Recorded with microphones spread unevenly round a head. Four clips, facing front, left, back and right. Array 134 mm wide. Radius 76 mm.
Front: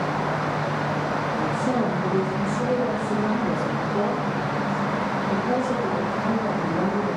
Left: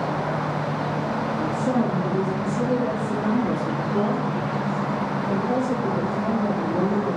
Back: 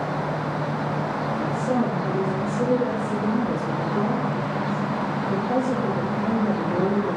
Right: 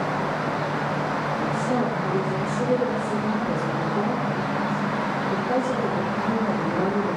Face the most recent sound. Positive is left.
turn(degrees=60)